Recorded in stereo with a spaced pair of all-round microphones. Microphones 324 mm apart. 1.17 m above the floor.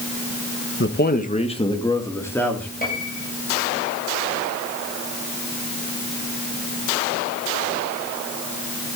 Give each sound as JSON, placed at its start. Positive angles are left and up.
{"t": 0.8, "sound": "a man speaking", "side_deg": 40, "distance_m": 1.5}
{"t": 2.8, "sound": "a piano", "side_deg": 25, "distance_m": 7.5}